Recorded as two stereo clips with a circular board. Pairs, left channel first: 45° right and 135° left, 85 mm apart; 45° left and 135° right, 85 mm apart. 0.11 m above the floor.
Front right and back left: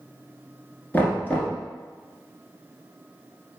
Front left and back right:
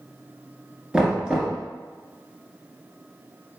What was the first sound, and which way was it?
Knocking, 70° right.